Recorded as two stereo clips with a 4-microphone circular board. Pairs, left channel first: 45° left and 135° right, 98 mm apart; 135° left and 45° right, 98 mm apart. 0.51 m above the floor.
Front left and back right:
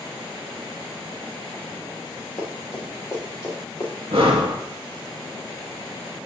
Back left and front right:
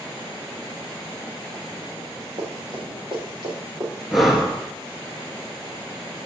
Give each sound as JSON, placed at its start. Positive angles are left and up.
{"t": 2.4, "sound": "running footsteps", "azimuth_deg": -10, "distance_m": 4.0}
{"t": 4.1, "sound": "breathing", "azimuth_deg": -135, "distance_m": 1.6}